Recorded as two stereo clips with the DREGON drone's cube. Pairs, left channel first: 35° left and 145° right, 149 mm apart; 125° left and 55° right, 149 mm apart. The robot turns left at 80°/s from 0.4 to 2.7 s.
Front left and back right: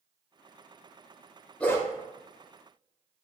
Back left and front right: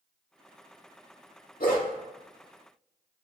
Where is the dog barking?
115° left, 0.8 m; by 1.9 s 95° left, 0.8 m.